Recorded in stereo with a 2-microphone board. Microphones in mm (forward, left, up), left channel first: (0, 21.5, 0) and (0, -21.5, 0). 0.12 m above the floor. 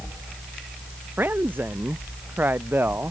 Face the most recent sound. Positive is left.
turn(degrees=-50)  # may be behind; listen again after turning